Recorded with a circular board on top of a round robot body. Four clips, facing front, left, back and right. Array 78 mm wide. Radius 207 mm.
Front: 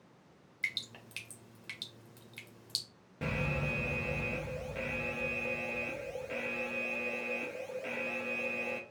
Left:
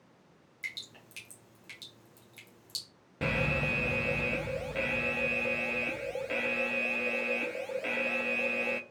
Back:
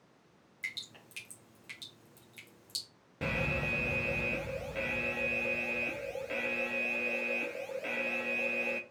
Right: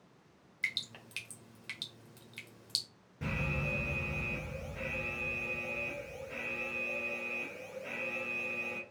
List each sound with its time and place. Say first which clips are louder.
0.6 s dripping: right 4 dB, front 4 dB; 60° right, 1.2 m
3.2 s an alarm: left 6 dB, back 1 dB; 105° left, 0.7 m